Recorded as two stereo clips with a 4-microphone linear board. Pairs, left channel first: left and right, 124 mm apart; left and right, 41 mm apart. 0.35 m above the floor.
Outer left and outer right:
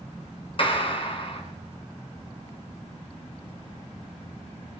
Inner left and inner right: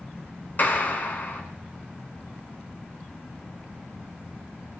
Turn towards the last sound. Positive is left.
turn(degrees=45)  # may be behind; listen again after turning